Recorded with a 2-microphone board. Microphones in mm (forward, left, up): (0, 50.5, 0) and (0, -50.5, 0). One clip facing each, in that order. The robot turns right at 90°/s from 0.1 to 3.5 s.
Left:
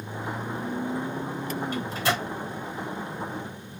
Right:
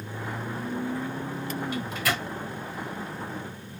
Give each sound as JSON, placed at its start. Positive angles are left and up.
{"t": 1.7, "sound": "a microwave", "side_deg": 45, "distance_m": 1.3}